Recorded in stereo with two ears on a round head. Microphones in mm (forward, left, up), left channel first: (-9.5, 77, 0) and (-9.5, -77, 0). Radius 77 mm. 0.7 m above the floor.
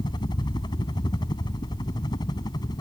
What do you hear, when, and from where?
0.0 s a helicopter: 25° left (ahead or behind); by 2.8 s 20° left (ahead or behind)